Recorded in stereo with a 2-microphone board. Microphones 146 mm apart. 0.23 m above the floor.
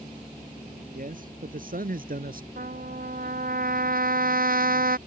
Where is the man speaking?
65° right (ahead or behind); by 2.5 s 70° right (ahead or behind).